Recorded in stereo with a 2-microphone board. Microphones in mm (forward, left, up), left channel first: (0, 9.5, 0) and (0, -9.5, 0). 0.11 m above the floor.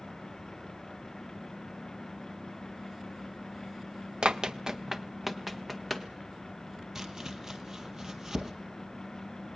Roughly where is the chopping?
Right.